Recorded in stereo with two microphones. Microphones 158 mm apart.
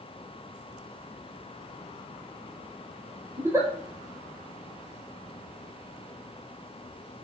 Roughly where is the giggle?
Centre.